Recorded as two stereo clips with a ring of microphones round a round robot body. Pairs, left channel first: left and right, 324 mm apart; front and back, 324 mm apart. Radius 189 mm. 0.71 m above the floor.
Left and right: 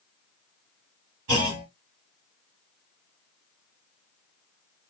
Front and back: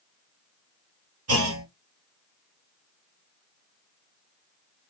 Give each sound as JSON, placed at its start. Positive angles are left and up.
{"t": 1.3, "sound": "a clunk", "azimuth_deg": -135, "distance_m": 1.7}